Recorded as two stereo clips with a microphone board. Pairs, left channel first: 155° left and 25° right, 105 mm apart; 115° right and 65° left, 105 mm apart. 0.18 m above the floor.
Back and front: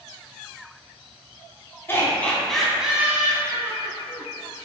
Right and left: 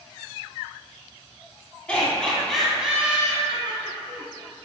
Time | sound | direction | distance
1.9 | laughter | straight behind | 1.2 m